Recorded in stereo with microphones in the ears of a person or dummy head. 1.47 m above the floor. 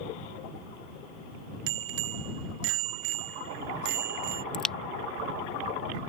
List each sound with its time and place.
1.7 s a bicycle bell: 70° right (ahead or behind); by 4.4 s 55° right (ahead or behind)
4.5 s a crack: 5° left (ahead or behind)